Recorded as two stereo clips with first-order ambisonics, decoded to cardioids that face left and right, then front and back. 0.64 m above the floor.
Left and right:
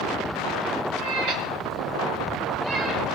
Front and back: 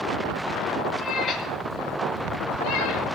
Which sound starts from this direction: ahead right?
A cat meowing, at 1.0 s.